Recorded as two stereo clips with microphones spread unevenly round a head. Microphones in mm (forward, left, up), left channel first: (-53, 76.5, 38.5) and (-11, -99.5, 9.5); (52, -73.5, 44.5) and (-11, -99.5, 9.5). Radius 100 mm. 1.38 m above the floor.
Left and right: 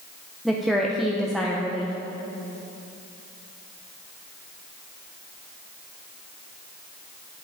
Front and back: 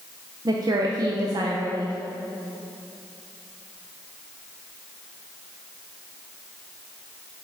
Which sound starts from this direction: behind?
A woman speaking, at 0.5 s.